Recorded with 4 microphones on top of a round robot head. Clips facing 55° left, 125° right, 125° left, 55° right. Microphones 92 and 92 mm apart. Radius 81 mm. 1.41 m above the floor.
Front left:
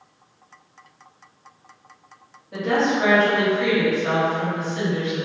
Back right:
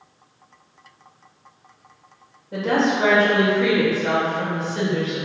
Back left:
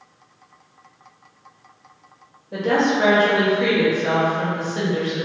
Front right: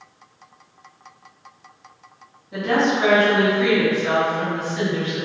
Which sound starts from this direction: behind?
A woman speaking, at 2.5 s.